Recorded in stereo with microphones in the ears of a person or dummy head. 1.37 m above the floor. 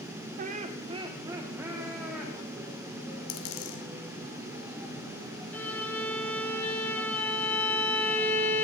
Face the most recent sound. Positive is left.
turn(degrees=10)  # may be behind; listen again after turning